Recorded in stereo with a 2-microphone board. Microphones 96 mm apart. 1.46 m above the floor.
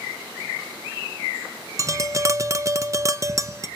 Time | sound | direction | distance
1.8 | tapping | 35° right (ahead or behind) | 0.6 m